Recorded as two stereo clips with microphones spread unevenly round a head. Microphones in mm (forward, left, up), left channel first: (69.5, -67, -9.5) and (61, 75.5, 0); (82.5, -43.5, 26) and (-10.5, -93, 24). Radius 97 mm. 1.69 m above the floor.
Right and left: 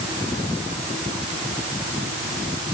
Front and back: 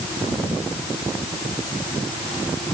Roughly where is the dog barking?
I don't hear a dog barking.